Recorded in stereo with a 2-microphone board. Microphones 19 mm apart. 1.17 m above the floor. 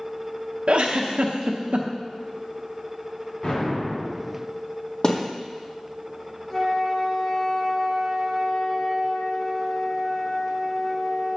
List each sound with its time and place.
0.7 s a giggle: 75° right (ahead or behind), 0.7 m
3.4 s an explosion: 55° left (ahead or behind), 3.5 m
5.0 s a thud: 45° left (ahead or behind), 1.6 m
6.5 s a flute: 30° left (ahead or behind), 1.5 m